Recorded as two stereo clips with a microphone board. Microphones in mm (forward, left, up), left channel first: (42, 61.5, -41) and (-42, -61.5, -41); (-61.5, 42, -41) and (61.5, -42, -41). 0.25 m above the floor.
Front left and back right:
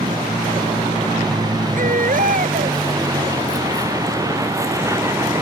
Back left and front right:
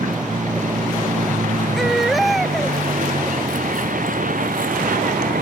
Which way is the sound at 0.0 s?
65° right.